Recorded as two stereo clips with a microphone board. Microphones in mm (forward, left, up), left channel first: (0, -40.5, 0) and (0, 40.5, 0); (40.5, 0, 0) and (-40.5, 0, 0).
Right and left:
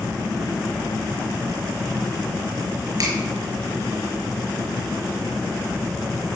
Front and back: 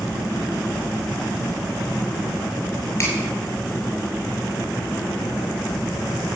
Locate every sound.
3.0 s a finger snap: 55° left, 6 m